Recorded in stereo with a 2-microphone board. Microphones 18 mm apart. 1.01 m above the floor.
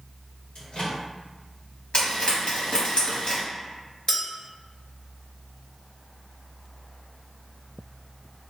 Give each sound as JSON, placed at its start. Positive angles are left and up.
{"t": 0.6, "sound": "a microwave", "side_deg": 75, "distance_m": 1.5}
{"t": 1.9, "sound": "frying", "side_deg": 65, "distance_m": 2.0}
{"t": 4.1, "sound": "a clink", "side_deg": 30, "distance_m": 0.8}